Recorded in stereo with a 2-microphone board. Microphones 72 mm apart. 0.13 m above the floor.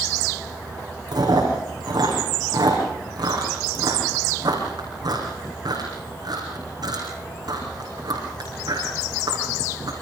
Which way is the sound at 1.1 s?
70° right (ahead or behind).